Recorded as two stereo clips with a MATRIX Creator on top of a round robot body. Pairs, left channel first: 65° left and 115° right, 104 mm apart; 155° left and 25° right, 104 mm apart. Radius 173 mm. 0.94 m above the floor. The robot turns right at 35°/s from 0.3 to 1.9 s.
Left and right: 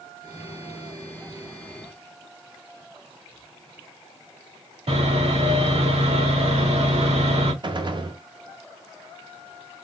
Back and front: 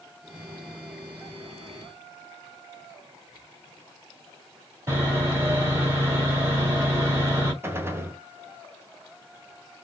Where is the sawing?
85° right, 2.0 m.